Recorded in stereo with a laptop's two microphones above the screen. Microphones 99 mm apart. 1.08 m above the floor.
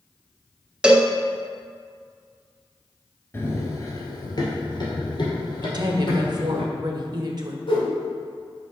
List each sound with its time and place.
0.8 s a cowbell: 10° right (ahead or behind), 0.7 m
3.3 s running footsteps: 25° left (ahead or behind), 1.1 m; by 6.6 s 50° left (ahead or behind), 3 m
5.6 s a woman speaking: 45° right (ahead or behind), 0.9 m
7.7 s a whoosh: 60° left (ahead or behind), 2 m